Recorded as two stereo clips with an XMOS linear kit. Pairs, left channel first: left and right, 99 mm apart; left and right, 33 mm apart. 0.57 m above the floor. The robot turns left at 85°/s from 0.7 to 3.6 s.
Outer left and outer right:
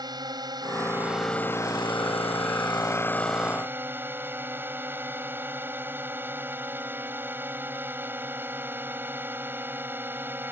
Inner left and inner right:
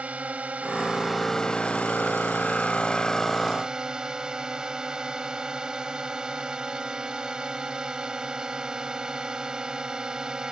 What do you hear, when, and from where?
0.0 s a drone: 135° right; by 10.5 s 20° right